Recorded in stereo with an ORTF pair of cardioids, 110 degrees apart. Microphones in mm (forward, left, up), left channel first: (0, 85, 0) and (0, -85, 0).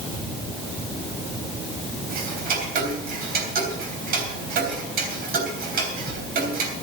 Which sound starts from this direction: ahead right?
Ticking, at 2.1 s.